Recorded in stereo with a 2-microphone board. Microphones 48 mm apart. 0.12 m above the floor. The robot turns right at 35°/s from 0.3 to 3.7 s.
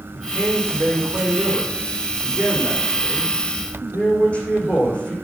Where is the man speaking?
90° right, 6 m; by 5.1 s 25° left, 6 m.